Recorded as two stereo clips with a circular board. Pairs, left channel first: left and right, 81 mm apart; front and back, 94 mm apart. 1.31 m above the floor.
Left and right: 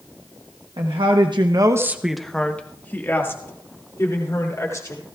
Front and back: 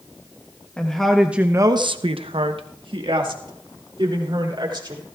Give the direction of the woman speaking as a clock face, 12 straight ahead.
3 o'clock.